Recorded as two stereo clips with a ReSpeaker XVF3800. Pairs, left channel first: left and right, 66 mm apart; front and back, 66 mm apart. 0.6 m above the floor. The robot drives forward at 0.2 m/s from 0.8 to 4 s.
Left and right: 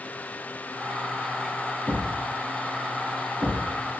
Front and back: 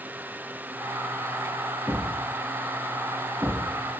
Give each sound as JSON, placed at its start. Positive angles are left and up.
{"t": 1.9, "sound": "a thud", "azimuth_deg": -120, "distance_m": 1.4}